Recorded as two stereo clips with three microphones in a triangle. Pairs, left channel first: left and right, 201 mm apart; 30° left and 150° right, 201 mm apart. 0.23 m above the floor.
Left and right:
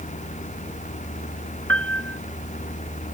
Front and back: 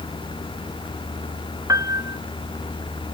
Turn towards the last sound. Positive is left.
turn(degrees=-75)